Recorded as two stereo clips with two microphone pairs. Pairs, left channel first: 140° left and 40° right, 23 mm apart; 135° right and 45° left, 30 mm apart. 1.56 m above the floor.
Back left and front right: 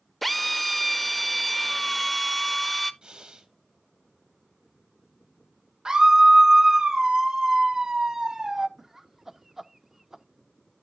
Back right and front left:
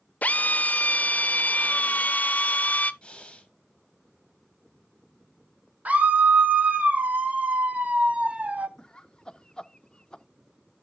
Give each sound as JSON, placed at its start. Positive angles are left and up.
{"t": 0.2, "sound": "a drill", "azimuth_deg": -140, "distance_m": 0.5}
{"t": 3.0, "sound": "breathing", "azimuth_deg": -80, "distance_m": 1.5}
{"t": 5.8, "sound": "a scream", "azimuth_deg": 10, "distance_m": 1.1}
{"t": 8.8, "sound": "laughter", "azimuth_deg": -105, "distance_m": 0.5}